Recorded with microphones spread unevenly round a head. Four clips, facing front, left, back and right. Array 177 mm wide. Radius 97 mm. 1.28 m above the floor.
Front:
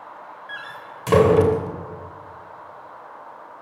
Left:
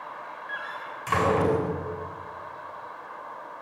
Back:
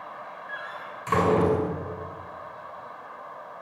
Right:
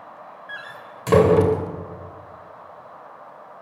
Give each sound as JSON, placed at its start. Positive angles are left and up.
{"t": 0.5, "sound": "a door slam", "azimuth_deg": -55, "distance_m": 3.0}